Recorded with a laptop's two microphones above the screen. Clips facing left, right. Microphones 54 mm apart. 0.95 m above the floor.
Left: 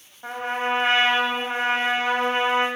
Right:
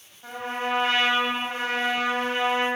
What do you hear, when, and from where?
0.2 s a trumpet: 35° left (ahead or behind), 4 m